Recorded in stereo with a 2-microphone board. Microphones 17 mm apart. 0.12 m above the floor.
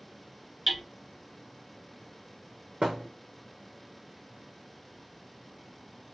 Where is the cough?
I don't hear a cough.